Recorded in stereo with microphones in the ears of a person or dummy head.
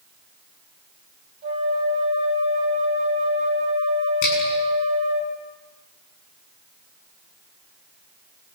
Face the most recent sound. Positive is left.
turn(degrees=70)  # may be behind; listen again after turning